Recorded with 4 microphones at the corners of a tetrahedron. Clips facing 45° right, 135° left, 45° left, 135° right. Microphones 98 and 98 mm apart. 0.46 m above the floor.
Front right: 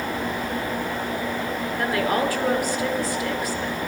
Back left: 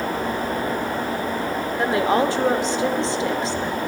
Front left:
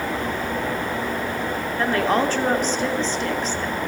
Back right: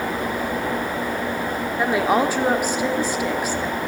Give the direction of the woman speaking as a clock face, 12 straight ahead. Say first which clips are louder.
Back left 4 dB, back right 1 dB; 7 o'clock.